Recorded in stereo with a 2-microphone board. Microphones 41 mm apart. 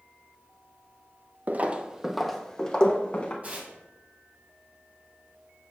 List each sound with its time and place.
1.5 s footsteps: 45° right (ahead or behind), 0.6 m; by 3.3 s 30° left (ahead or behind), 1.2 m
3.4 s tearing paper: 35° right (ahead or behind), 1.5 m